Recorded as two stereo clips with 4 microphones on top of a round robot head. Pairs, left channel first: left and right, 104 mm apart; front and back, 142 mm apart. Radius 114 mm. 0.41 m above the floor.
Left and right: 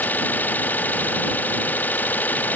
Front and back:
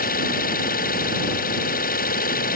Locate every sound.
0.0 s an engine running: 15° left